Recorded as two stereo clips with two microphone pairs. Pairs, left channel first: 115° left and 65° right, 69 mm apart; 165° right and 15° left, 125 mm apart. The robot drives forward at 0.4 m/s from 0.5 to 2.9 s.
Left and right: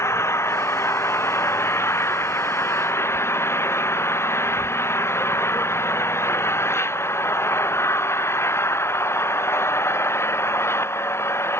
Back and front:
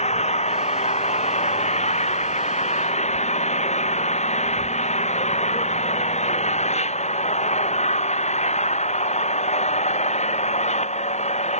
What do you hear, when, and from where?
0.0 s an engine running: 165° left; by 11.6 s 170° left